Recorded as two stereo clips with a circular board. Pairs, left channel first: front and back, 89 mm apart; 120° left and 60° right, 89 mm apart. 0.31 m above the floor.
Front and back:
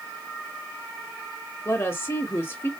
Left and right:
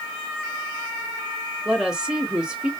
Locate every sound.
1.6 s a woman speaking: 10° left, 0.9 m